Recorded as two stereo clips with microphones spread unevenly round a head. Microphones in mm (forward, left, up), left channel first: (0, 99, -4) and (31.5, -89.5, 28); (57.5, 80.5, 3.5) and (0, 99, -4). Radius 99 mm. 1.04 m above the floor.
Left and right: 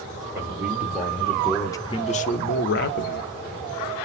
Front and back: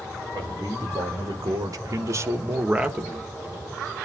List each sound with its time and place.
0.3 s a man speaking: 160° right, 3 m; by 3.3 s 80° left, 1.9 m